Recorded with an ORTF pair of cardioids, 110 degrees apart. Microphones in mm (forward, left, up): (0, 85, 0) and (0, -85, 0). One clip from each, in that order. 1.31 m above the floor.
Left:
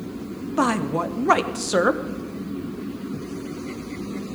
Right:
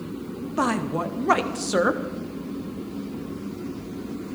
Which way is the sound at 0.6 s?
10° left.